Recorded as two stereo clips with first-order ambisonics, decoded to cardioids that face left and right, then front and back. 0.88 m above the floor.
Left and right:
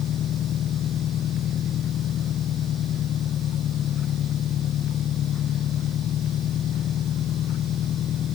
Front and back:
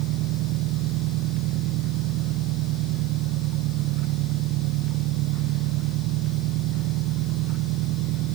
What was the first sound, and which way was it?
An engine running, 150° left.